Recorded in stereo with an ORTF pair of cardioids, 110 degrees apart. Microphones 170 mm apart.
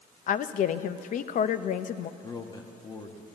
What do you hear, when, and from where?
0.3 s a woman speaking: 50° left, 0.6 m
2.2 s a man speaking: 25° left, 1.3 m